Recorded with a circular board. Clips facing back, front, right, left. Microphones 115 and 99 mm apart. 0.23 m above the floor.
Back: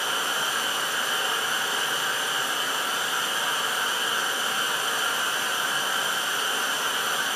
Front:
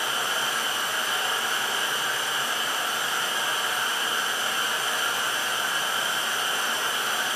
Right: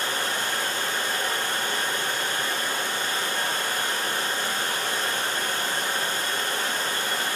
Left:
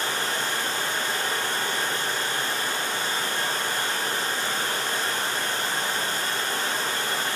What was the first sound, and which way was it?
Running water, 120° right.